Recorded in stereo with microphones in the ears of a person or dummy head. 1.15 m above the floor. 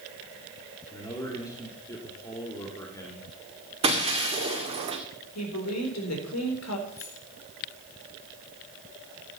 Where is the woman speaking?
85° left, 4.5 m.